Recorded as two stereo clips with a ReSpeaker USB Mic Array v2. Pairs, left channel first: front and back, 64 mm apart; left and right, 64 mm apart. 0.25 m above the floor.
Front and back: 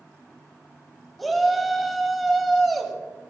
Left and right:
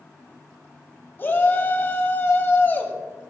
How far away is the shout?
About 1.1 m.